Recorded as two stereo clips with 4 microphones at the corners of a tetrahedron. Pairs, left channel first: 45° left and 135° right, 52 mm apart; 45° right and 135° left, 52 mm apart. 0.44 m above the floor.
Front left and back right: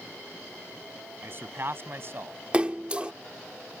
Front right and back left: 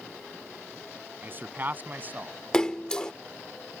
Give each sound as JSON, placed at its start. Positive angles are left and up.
{"t": 1.2, "sound": "a man speaking", "azimuth_deg": -175}
{"t": 2.5, "sound": "a splash", "azimuth_deg": -100}